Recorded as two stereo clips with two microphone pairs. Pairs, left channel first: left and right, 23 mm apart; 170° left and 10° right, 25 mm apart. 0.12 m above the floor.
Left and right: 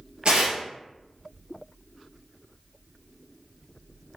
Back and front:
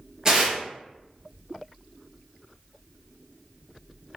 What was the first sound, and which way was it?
Tearing paper, 70° right.